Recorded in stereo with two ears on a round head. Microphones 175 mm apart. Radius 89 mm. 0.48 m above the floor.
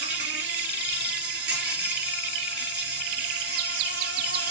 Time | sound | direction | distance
0.0 | an insect | 60° right (ahead or behind) | 2 m